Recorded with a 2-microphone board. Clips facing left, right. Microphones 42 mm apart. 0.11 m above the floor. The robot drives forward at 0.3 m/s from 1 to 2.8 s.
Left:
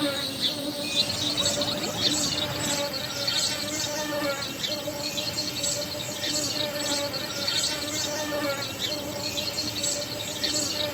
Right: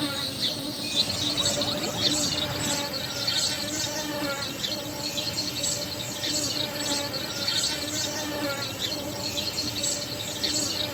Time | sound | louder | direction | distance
0.0 | an insect | left 2 dB | 30° left (ahead or behind) | 1.4 m